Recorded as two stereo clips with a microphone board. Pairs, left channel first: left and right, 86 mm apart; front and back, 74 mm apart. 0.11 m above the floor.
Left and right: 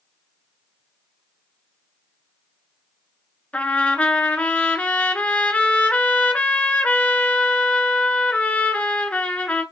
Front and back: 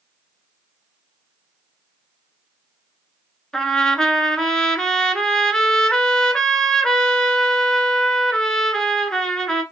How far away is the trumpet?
About 0.7 m.